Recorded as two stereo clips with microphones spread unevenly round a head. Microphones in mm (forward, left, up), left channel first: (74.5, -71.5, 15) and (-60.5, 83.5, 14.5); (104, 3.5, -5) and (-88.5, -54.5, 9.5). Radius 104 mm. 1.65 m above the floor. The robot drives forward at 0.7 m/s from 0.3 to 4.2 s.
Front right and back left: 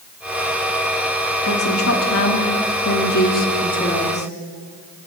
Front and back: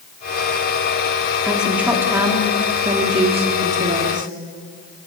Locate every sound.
1.4 s a woman speaking: 75° right, 3.5 m; by 4.3 s 110° right, 3.5 m